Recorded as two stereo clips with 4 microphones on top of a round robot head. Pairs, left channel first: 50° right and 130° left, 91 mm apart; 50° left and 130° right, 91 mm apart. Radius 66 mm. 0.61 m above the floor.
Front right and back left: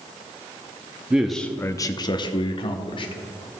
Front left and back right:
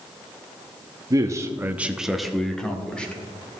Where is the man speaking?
155° right, 0.7 m; by 3.5 s 25° right, 2.0 m.